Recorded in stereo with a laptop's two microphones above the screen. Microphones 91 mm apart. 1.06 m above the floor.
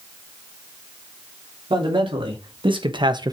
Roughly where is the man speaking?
Right.